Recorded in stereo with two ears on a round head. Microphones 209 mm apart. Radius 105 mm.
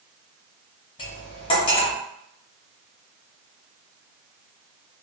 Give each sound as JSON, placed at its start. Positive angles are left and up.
{"t": 1.0, "sound": "cutlery clinking", "side_deg": 20, "distance_m": 1.0}